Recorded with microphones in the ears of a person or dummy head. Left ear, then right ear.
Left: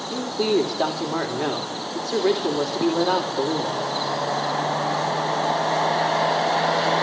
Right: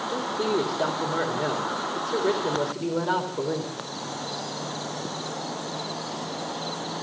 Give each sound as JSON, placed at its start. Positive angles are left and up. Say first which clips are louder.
{"t": 0.1, "sound": "a man speaking", "louder": "left 5 dB", "side_deg": 25, "distance_m": 3.0}